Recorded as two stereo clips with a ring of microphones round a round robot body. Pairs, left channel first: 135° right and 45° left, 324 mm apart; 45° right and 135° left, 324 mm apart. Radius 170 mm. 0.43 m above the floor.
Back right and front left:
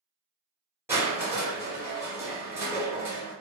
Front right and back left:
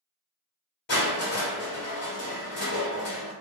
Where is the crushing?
30° right, 1.5 m.